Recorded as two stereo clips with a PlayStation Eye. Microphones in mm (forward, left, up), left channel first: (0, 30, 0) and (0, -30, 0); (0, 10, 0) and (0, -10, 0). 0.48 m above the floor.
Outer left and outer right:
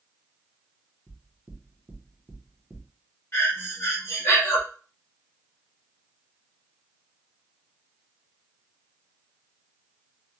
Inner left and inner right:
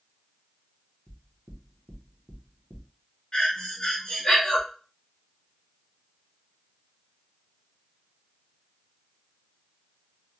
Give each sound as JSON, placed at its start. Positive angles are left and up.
{"t": 1.1, "sound": "knocking", "side_deg": -25, "distance_m": 0.8}
{"t": 3.3, "sound": "breathing", "side_deg": 45, "distance_m": 1.2}